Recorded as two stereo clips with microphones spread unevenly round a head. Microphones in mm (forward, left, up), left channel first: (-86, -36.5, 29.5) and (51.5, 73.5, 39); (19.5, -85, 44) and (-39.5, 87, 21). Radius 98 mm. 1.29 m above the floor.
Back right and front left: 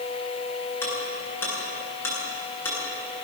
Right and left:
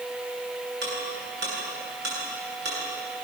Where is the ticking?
140° left, 9.5 m.